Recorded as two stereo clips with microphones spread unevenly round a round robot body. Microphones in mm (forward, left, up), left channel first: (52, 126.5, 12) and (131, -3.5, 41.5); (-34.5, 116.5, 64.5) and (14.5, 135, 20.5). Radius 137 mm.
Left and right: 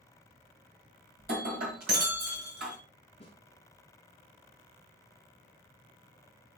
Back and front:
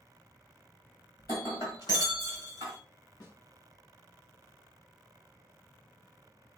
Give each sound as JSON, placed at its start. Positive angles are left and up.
{"t": 1.2, "sound": "breaking glass", "azimuth_deg": -100, "distance_m": 1.5}
{"t": 3.2, "sound": "a snare drum", "azimuth_deg": 175, "distance_m": 3.0}